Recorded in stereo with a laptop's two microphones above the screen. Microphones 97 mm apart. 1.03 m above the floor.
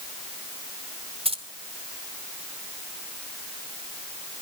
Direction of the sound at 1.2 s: 80° right.